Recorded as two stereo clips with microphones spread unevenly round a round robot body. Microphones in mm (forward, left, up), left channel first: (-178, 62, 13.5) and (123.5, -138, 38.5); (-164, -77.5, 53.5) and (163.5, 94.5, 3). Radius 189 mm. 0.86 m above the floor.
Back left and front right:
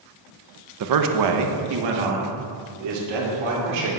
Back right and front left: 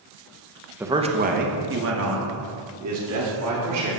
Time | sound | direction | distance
0.8 | a man speaking | 45° right | 0.7 m